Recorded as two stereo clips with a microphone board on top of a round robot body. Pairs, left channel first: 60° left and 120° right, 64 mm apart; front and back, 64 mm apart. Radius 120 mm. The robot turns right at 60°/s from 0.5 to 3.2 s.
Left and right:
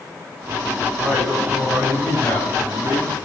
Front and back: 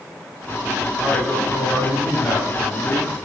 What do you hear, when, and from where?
1.0 s a man speaking: 70° right, 5.5 m; by 3.2 s 60° left, 5.5 m